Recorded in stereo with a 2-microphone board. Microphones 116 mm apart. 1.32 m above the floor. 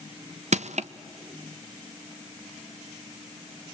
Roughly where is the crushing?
Right.